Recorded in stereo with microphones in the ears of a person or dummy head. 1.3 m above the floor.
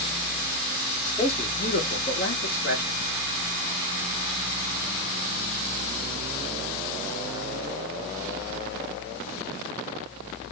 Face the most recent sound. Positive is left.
turn(degrees=40)  # may be behind; listen again after turning